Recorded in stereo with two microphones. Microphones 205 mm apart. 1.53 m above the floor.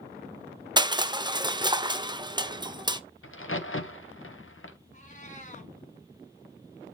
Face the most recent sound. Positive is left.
turn(degrees=40)  # may be behind; listen again after turning